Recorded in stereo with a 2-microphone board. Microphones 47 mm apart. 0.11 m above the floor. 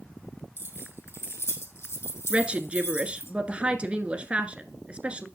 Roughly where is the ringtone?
No ringtone in this recording.